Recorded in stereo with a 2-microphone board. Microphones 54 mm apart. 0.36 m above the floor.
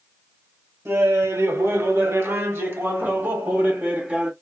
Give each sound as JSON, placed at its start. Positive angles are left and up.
{"t": 0.8, "sound": "laughter", "side_deg": -55, "distance_m": 1.5}